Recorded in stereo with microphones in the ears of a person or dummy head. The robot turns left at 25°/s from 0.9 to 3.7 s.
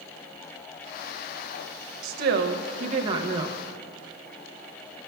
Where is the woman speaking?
120° right, 0.6 m; by 3.6 s 160° right, 0.6 m.